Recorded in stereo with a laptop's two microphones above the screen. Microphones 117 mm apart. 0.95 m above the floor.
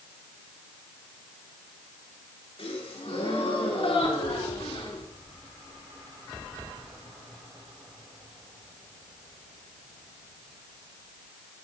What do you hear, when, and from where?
2.6 s a gasp: 60° left (ahead or behind), 2.5 m